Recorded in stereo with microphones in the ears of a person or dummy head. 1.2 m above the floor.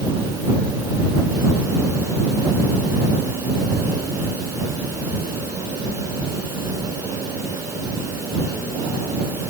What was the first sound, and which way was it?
Only background noise.